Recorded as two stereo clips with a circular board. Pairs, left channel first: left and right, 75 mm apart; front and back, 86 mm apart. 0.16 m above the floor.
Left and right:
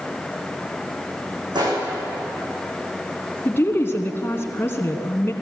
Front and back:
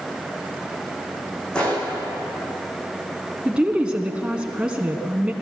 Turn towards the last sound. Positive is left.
turn(degrees=110)